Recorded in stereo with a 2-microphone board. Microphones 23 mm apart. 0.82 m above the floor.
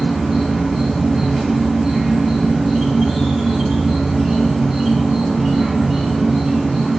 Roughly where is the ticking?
No ticking in this recording.